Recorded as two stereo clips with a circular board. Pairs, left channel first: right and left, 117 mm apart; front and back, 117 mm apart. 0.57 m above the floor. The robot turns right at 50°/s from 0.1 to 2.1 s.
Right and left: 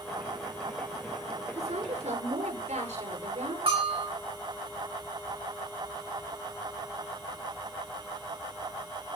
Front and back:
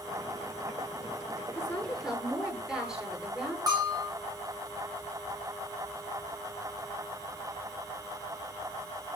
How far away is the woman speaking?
About 8.5 m.